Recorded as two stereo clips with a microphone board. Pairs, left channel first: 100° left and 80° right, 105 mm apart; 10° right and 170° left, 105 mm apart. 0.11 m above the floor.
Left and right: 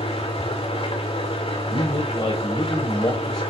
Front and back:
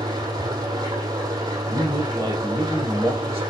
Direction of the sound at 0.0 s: 120° left.